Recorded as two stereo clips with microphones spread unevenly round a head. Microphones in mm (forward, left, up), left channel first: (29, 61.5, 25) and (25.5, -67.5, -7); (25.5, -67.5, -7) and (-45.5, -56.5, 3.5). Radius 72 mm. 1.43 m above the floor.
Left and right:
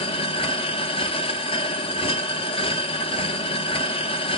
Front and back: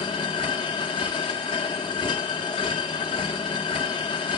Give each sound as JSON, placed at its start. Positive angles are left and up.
{"t": 0.0, "sound": "a machine running", "azimuth_deg": 40, "distance_m": 0.8}